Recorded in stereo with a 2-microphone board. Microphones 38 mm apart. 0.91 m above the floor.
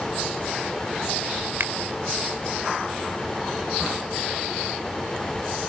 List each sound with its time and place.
1.6 s a finger snap: 70° right (ahead or behind)